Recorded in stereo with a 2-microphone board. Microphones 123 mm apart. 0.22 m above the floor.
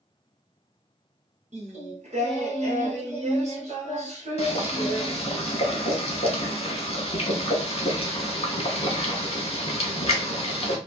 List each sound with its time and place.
1.5 s singing: 65° right (ahead or behind), 1.2 m
4.4 s boiling: 50° left (ahead or behind), 0.8 m